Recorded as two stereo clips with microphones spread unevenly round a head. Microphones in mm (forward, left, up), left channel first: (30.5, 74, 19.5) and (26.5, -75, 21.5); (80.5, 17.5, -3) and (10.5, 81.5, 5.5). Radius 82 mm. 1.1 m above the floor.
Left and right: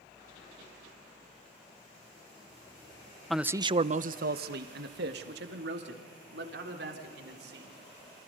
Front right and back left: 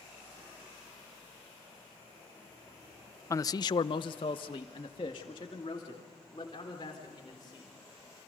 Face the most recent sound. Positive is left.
turn(degrees=-105)